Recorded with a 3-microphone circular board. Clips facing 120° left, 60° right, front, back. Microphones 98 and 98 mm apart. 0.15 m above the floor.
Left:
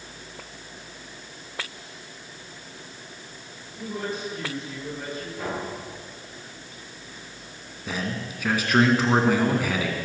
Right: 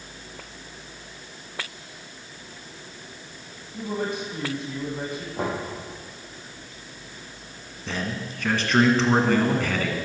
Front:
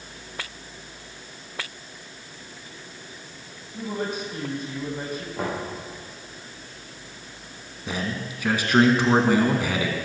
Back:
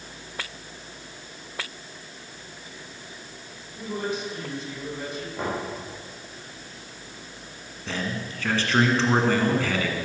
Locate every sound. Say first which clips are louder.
3.7 s a woman speaking: right 3 dB, front 1 dB; 40° right, 5.5 m
5.4 s knocking: right 4 dB, even; 75° right, 7 m
7.9 s a man speaking: even, front 1 dB; 55° left, 1.7 m